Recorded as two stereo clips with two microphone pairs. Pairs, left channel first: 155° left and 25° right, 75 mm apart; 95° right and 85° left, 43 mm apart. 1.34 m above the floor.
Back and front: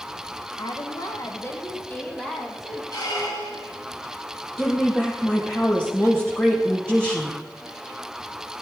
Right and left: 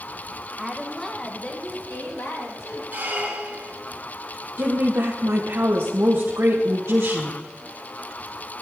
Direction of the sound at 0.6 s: 170° left.